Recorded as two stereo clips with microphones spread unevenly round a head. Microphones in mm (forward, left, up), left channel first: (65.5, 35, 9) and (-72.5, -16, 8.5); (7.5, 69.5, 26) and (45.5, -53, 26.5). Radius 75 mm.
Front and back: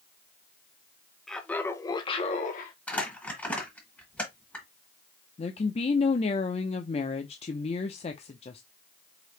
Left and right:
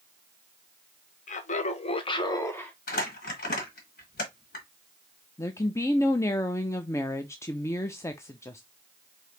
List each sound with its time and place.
1.3 s laughter: 110° left, 0.9 m; by 2.7 s 30° left, 0.8 m
2.9 s crumpling: 100° left, 2.0 m
5.4 s a woman speaking: 45° left, 0.5 m